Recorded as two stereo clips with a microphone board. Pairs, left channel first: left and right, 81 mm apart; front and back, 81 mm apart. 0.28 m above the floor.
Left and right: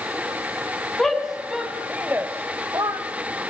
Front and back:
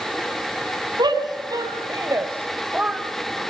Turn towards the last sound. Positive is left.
turn(degrees=-95)